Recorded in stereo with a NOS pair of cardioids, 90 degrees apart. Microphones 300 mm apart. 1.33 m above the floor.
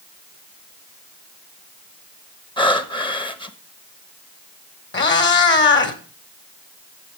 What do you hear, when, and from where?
2.6 s breathing: 15° left, 1.2 m
4.9 s a cat meowing: 35° left, 2 m